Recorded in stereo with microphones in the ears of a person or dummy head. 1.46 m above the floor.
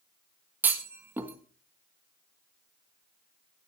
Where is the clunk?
10° right (ahead or behind), 1.3 m.